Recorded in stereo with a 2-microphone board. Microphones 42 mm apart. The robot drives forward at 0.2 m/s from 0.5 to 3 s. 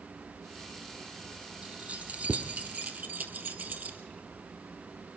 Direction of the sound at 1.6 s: 40° right (ahead or behind).